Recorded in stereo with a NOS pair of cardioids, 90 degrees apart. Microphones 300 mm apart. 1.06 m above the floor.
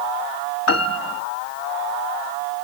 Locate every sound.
0.7 s a piano: 50° left, 1.4 m